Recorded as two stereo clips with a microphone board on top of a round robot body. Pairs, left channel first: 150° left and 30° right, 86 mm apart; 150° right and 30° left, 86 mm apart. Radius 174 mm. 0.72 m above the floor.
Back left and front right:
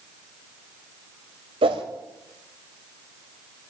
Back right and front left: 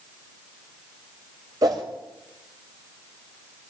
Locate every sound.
1.6 s a whoosh: 20° right, 0.7 m